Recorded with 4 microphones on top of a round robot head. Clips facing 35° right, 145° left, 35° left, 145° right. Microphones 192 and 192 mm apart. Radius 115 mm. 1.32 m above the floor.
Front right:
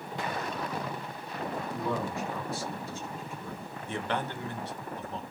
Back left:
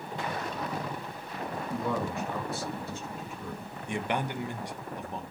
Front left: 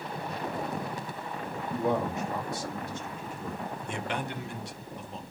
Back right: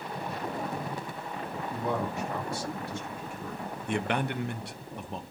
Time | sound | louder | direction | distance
1.7 | a man speaking | back left 3 dB, front left 4 dB | 105° left | 2.5 m
3.9 | a man speaking | back left 2 dB, back right 7 dB | 145° right | 0.7 m